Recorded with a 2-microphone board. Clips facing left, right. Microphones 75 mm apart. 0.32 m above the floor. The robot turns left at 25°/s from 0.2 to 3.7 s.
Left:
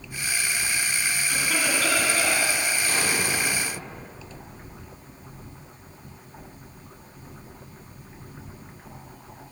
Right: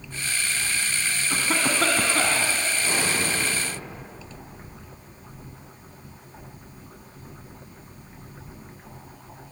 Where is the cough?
40° right, 2 m; by 2.5 s 70° right, 2 m.